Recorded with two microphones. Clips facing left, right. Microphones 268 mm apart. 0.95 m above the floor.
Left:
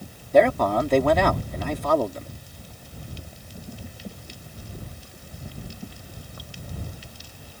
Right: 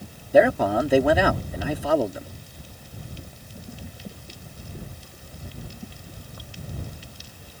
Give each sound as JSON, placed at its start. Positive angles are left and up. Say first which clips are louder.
{"t": 0.3, "sound": "a man speaking", "louder": "right 1 dB", "side_deg": -10}